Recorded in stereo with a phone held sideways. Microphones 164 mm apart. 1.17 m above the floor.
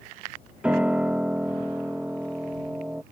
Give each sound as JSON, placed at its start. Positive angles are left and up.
{"t": 0.6, "sound": "a piano", "side_deg": -5}